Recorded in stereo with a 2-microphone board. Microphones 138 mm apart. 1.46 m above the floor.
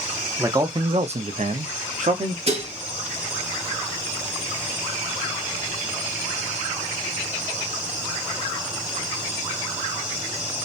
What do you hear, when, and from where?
0.4 s a man speaking: 20° right (ahead or behind), 0.6 m; by 2.4 s 55° right (ahead or behind), 0.8 m
2.5 s dishes clattering: 50° right (ahead or behind), 0.9 m